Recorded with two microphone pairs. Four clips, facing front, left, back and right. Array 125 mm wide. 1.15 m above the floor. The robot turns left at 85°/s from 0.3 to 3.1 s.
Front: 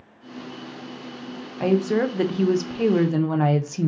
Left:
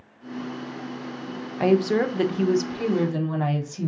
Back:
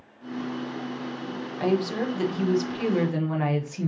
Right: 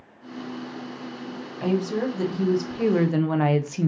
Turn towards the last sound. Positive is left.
turn(degrees=-50)